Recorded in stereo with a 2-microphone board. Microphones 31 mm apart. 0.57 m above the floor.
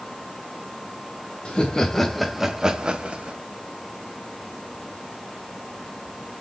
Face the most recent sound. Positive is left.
turn(degrees=-40)  # may be behind; listen again after turning